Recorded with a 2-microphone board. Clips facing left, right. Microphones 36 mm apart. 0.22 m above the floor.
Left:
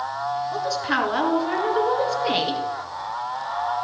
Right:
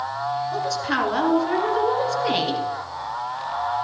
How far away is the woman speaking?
About 2 m.